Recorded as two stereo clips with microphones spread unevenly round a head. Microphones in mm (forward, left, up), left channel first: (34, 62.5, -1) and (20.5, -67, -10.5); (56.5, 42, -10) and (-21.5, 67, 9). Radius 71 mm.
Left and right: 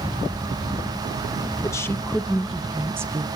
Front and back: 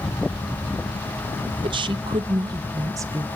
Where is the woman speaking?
155° left, 1.2 m; by 3.3 s 130° right, 0.9 m.